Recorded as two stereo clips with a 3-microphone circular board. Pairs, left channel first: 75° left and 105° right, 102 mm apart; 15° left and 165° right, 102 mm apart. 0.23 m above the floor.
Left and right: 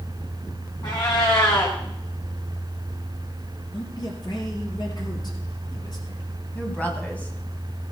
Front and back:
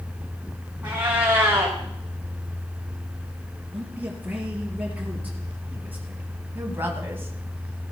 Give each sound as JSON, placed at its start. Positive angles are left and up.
{"t": 0.8, "sound": "a cat meowing", "azimuth_deg": 125, "distance_m": 4.0}
{"t": 3.7, "sound": "a man speaking", "azimuth_deg": 120, "distance_m": 4.0}
{"t": 6.5, "sound": "a woman speaking", "azimuth_deg": 140, "distance_m": 1.9}